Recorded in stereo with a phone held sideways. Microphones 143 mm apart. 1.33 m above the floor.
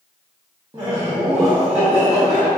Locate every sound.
0.7 s laughter: 35° right (ahead or behind), 0.7 m